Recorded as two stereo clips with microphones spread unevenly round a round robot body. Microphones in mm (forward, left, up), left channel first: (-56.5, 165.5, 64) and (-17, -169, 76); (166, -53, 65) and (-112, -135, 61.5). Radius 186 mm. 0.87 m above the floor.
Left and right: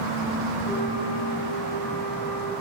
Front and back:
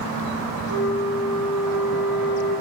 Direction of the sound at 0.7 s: 15° left.